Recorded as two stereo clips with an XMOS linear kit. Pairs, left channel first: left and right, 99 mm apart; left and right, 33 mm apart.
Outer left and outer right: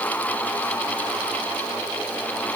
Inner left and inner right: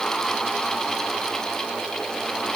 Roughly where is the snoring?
I don't hear snoring.